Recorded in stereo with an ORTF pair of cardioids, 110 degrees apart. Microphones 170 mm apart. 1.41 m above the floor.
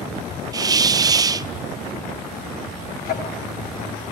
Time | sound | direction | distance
0.5 | a hiss | 20° right | 0.5 m
3.0 | ticking | 65° left | 4 m